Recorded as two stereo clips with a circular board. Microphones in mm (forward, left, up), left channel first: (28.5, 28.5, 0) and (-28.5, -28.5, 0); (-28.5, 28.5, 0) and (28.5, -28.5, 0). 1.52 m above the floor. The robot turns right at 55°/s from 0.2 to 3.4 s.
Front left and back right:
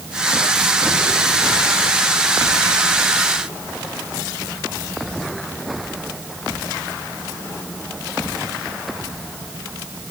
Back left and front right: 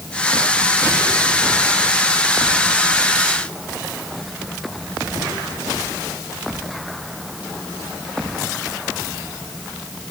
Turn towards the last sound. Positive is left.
No sound to turn to.